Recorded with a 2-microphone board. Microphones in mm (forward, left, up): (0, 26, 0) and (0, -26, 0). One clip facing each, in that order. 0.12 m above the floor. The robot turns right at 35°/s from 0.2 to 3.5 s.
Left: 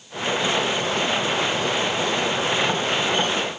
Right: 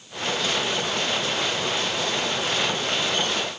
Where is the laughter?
I don't hear laughter.